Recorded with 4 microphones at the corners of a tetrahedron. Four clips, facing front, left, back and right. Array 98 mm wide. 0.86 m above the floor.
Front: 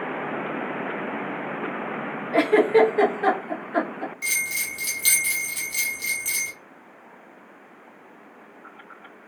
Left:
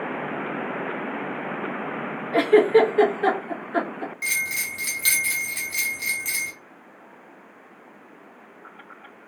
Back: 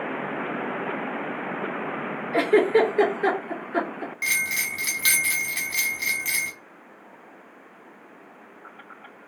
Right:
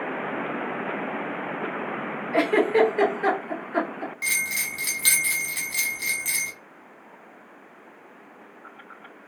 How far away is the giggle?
About 1.1 m.